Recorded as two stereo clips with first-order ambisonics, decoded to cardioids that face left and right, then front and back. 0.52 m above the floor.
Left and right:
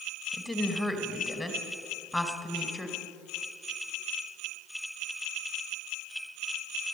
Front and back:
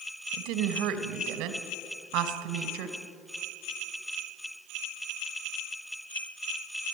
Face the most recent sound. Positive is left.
turn(degrees=170)